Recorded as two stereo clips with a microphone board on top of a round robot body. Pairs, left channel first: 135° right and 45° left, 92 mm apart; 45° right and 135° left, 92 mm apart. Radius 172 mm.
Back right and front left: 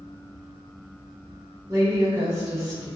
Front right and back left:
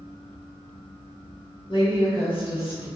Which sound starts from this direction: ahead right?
A woman speaking, at 1.7 s.